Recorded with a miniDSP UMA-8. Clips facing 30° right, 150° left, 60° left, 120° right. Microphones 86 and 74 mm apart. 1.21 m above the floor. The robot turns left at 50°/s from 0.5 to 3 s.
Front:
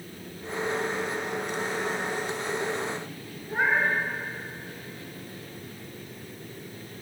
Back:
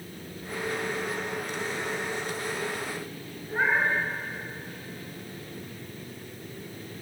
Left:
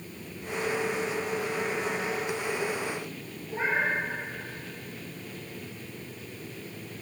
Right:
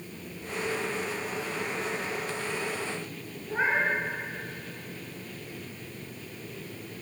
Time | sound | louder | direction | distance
3.5 | a cat meowing | front 1 dB, right 1 dB | 115° right | 4 m